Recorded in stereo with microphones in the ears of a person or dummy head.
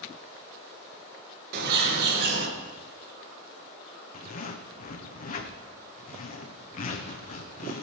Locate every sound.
1.5 s a bird: 50° right (ahead or behind), 2 m
4.1 s a zipper: 40° left (ahead or behind), 1.0 m